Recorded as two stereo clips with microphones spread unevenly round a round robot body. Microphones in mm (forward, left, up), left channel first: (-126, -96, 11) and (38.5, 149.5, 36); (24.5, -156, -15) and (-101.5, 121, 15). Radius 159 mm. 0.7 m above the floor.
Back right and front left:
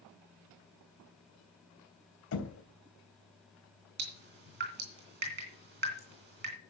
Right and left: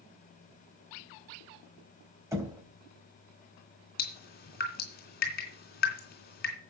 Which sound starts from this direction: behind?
Knocking, at 2.3 s.